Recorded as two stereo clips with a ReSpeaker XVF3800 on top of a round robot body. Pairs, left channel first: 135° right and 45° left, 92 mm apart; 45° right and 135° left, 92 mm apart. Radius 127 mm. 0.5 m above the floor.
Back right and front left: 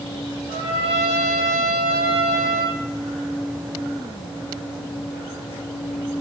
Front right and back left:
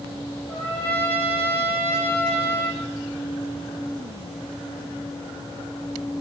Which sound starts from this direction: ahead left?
A trumpet, at 0.5 s.